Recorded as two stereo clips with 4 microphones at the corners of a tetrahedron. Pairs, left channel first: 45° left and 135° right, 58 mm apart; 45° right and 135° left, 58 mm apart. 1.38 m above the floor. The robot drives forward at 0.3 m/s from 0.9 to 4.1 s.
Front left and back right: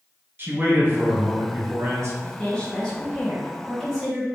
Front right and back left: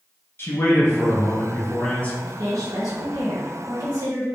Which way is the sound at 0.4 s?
85° right.